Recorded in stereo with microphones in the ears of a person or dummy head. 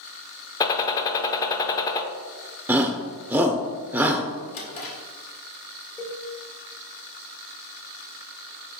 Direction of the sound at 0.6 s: 25° left (ahead or behind).